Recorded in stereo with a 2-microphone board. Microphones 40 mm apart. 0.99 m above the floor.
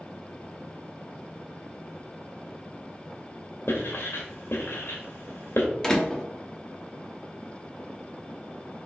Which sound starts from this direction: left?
Writing, at 3.7 s.